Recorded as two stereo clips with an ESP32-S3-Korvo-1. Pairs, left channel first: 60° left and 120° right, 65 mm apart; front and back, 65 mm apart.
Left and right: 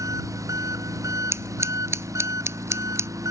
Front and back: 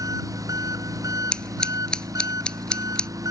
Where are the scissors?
75° right.